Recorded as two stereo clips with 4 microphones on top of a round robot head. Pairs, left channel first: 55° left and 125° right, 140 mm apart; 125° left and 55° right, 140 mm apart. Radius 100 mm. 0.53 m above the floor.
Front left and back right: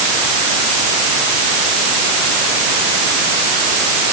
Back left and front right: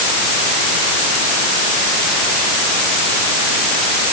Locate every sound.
Only background noise.